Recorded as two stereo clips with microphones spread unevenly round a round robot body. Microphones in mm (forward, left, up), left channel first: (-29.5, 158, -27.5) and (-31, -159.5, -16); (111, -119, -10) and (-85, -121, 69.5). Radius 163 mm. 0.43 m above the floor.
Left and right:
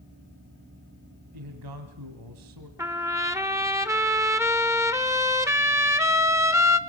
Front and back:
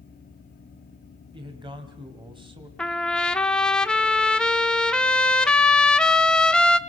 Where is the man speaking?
105° right, 2.5 m.